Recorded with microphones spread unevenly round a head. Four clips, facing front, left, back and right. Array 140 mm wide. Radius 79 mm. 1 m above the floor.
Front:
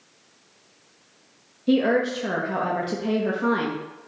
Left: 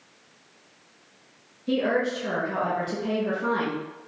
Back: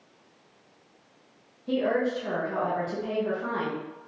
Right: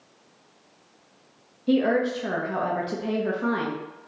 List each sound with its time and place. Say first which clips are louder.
1.7 s a woman speaking: right 3 dB, front 5 dB; 40° right, 0.6 m